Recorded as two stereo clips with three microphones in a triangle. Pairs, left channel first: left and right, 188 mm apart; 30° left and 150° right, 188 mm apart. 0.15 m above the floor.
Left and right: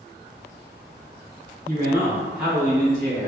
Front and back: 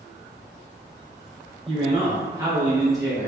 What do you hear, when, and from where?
1.7 s a man speaking: 140° right, 1.1 m; by 3.3 s 65° left, 1.0 m